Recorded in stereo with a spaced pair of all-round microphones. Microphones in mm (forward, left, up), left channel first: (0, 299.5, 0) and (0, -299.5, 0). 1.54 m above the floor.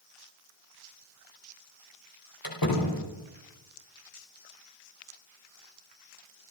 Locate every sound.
2.4 s a door slam: 35° left (ahead or behind), 5.5 m